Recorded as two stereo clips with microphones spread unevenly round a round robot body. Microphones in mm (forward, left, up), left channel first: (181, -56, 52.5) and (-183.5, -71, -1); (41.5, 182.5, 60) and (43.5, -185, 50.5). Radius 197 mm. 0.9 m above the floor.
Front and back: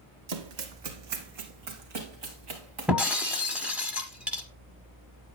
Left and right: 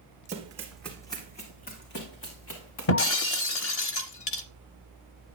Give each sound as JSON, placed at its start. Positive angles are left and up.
{"t": 0.3, "sound": "running footsteps", "azimuth_deg": -160, "distance_m": 1.7}
{"t": 2.9, "sound": "breaking glass", "azimuth_deg": 85, "distance_m": 0.8}